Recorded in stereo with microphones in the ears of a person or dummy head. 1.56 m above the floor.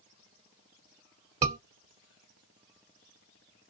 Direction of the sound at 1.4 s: 30° right (ahead or behind).